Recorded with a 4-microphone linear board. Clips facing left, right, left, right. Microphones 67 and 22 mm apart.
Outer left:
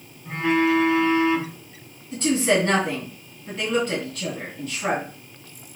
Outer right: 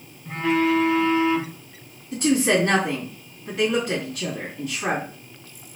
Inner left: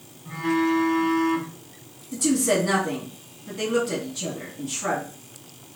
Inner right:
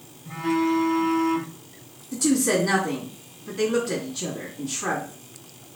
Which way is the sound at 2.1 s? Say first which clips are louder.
Outer right 1 dB, even; 10° right (ahead or behind).